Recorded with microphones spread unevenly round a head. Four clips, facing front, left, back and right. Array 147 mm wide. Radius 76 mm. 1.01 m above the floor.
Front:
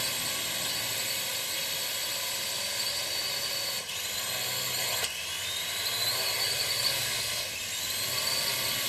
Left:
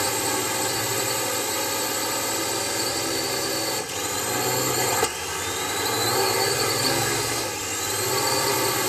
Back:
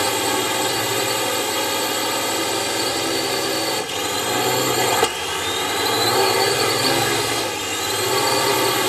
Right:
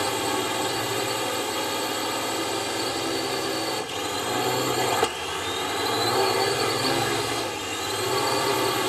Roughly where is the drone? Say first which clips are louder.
Right 1 dB, back 18 dB; behind.